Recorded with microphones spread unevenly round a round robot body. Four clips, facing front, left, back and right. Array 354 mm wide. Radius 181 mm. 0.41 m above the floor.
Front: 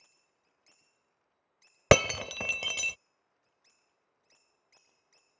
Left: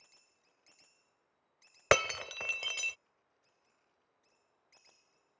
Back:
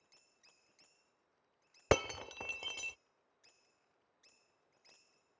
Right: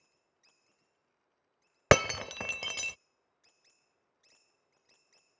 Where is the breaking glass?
25° right.